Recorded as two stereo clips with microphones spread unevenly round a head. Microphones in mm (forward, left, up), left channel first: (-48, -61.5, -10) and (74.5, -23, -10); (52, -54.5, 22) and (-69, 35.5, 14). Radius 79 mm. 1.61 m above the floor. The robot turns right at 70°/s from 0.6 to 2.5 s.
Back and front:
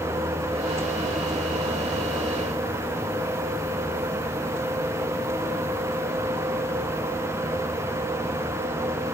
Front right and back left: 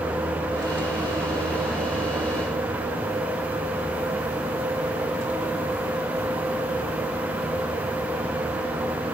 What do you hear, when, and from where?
Only background noise.